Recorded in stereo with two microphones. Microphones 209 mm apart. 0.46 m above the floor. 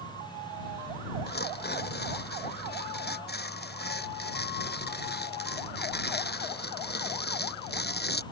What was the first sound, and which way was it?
Tearing paper, 50° left (ahead or behind).